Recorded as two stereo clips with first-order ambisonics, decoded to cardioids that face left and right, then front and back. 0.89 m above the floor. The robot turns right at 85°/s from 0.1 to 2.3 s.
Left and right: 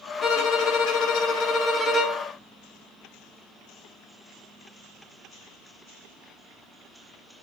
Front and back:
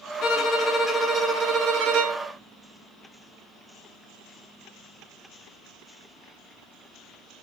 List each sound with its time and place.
0.2 s a violin: 35° left, 0.8 m; by 2.3 s 150° right, 0.8 m